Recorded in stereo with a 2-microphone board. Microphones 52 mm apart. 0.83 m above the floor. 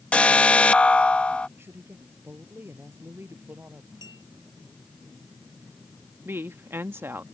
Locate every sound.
0.1 s an alarm: 25° left (ahead or behind)
1.6 s a woman speaking: 45° right (ahead or behind)
4.0 s a clink: 80° right
6.2 s a woman speaking: 50° right (ahead or behind)